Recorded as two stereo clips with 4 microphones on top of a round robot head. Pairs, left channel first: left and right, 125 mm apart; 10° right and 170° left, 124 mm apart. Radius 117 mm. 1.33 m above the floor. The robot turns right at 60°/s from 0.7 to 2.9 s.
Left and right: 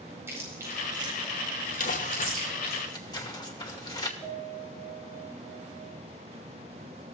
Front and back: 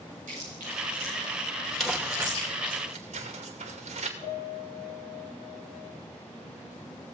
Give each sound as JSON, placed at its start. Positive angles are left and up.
{"t": 0.3, "sound": "chewing", "azimuth_deg": -160, "distance_m": 9.5}
{"t": 1.8, "sound": "crumpling", "azimuth_deg": 85, "distance_m": 2.5}
{"t": 4.2, "sound": "a piano", "azimuth_deg": -10, "distance_m": 6.0}